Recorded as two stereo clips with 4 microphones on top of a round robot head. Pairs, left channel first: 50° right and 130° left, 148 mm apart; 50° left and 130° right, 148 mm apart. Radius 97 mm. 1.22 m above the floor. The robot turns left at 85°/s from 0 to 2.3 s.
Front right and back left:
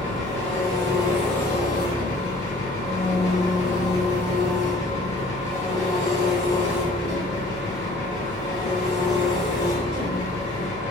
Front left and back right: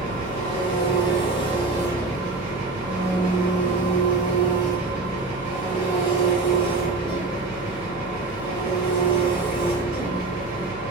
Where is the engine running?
135° left, 1.6 m; by 10.9 s 60° right, 1.6 m.